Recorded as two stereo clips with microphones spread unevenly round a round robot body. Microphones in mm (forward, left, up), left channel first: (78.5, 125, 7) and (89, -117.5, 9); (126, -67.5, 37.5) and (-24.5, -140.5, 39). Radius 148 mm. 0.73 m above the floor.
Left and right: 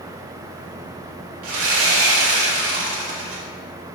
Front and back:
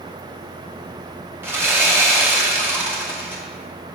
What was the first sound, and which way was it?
Sawing, 80° right.